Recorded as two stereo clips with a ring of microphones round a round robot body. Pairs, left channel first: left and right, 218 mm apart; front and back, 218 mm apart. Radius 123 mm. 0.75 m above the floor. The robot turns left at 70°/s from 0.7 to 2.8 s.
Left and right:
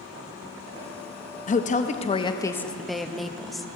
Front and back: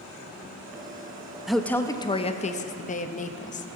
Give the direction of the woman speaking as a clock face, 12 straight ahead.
9 o'clock.